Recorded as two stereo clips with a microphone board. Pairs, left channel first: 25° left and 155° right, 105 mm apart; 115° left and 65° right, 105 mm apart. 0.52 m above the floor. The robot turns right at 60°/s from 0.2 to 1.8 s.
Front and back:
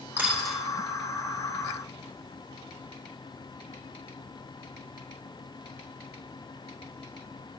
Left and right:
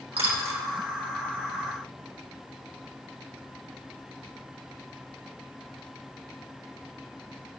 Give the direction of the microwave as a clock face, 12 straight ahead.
No microwave in this recording.